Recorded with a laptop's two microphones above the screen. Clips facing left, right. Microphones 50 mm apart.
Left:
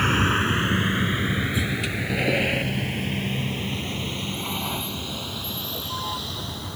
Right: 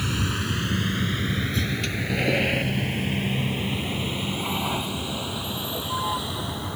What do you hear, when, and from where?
0.0 s a vehicle: 45° left (ahead or behind); by 6.8 s 15° right (ahead or behind)